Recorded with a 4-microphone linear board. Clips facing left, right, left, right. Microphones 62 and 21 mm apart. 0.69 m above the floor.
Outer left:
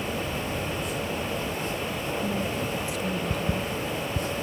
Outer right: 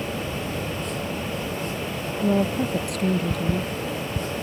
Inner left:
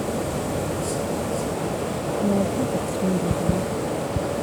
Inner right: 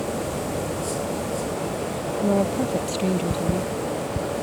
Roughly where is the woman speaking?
Right.